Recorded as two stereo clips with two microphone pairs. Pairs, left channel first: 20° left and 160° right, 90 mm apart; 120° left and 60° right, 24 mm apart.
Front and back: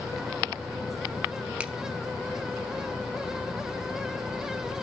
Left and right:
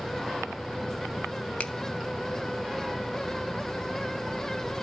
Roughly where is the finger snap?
Behind left.